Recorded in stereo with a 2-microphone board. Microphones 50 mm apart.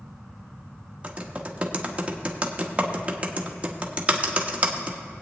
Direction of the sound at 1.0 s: 25° right (ahead or behind).